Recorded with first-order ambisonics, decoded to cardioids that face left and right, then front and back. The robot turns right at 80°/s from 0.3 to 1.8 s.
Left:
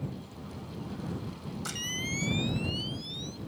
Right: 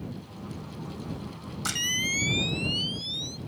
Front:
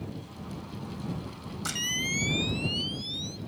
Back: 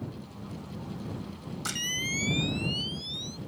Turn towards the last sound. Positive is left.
turn(degrees=-85)